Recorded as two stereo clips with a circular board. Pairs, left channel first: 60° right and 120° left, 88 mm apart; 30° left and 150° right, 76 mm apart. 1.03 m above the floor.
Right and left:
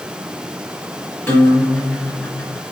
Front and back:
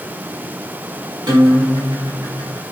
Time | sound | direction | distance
1.3 | a guitar | 130° right | 1.1 m